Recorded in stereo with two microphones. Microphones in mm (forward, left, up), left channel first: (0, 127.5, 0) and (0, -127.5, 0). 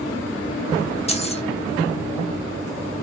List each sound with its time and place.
1.1 s keys jangling: 25° left (ahead or behind), 0.6 m